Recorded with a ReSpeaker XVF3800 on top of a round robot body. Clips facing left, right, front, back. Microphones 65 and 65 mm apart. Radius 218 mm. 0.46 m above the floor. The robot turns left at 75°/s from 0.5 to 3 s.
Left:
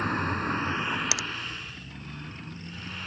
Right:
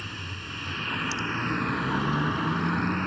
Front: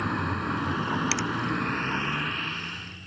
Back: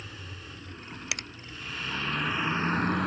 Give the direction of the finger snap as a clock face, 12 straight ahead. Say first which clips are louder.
Right 2 dB, front 9 dB; 9 o'clock.